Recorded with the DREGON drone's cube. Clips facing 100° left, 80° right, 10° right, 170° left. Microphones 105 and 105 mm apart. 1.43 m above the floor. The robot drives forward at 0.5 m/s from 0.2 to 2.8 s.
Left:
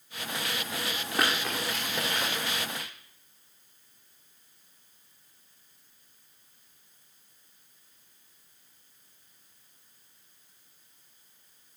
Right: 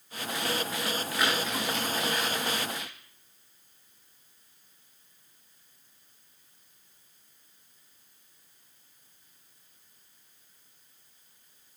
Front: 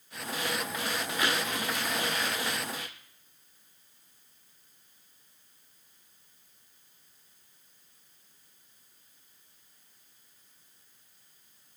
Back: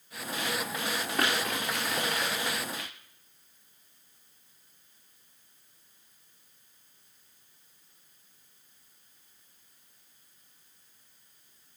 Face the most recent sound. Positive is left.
turn(degrees=145)